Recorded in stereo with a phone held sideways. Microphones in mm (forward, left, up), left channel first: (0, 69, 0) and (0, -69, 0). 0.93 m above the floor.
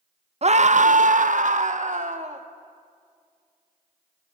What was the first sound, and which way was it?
A scream, 50° right (ahead or behind).